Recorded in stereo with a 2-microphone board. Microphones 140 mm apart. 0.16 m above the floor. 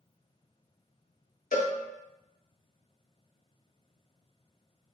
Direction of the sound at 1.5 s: 75° left (ahead or behind).